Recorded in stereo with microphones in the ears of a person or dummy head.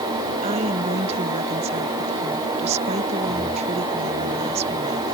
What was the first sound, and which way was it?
A woman speaking, 35° right (ahead or behind).